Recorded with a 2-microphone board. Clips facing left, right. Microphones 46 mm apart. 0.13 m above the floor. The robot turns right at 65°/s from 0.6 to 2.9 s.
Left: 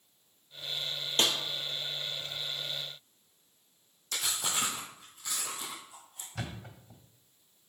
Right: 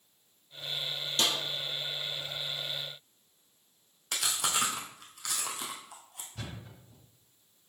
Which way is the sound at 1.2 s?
40° left (ahead or behind).